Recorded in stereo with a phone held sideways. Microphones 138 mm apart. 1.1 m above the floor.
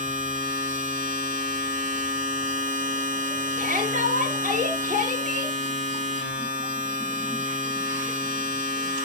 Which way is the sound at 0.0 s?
75° right (ahead or behind).